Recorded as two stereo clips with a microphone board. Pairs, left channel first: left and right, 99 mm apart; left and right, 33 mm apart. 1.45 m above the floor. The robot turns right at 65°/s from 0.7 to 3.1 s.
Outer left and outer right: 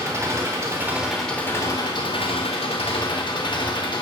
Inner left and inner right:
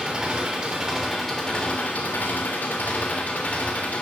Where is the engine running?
30° right, 3.5 m; by 4.0 s 125° left, 3.5 m.